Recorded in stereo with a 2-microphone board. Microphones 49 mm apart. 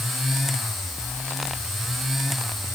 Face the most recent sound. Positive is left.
No sound to turn to.